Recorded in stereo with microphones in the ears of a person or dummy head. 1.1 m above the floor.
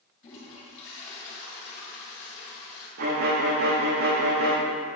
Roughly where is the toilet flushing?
Left.